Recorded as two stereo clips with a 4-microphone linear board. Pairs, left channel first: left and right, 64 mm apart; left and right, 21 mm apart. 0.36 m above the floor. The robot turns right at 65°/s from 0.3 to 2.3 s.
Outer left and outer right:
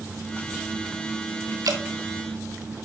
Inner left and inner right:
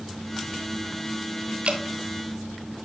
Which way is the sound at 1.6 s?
75° right (ahead or behind).